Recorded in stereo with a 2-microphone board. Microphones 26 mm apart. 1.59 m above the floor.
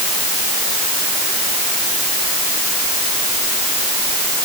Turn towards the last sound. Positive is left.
No sound to turn to.